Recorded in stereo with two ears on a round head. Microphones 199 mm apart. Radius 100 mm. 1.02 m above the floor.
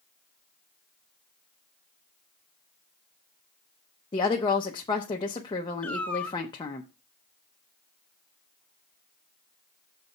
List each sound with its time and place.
4.1 s a woman speaking: 20° left (ahead or behind), 0.7 m
5.8 s a cat meowing: 5° left (ahead or behind), 0.6 m